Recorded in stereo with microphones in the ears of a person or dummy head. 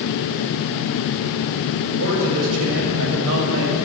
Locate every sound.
1.9 s a man speaking: 80° right, 7 m